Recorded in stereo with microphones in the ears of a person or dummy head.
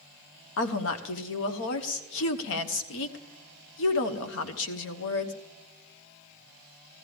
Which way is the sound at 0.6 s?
70° left (ahead or behind).